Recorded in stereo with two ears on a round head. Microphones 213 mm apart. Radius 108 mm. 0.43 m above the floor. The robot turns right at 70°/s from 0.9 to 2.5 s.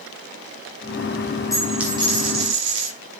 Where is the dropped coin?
165° left, 7 m; by 2.9 s 125° right, 7 m.